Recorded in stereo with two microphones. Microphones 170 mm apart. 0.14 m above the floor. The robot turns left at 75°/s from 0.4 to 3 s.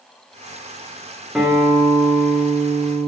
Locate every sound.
1.4 s a guitar: straight ahead, 1.6 m; by 3.1 s 125° right, 1.6 m